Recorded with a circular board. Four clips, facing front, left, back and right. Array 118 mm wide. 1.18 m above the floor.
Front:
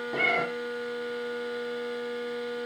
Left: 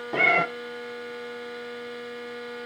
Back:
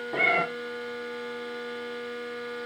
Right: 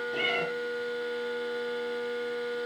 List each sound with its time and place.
0.1 s a cat meowing: 100° left, 0.9 m